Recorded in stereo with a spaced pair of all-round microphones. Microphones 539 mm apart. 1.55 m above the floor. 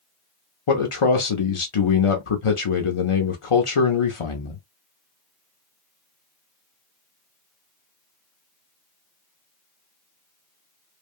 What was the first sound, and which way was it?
A man speaking, 65° left (ahead or behind).